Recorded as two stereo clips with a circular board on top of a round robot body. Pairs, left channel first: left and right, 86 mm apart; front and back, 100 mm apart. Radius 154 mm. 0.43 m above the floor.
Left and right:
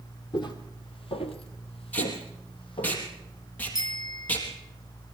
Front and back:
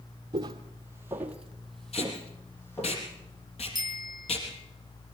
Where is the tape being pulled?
20° left, 3.5 m.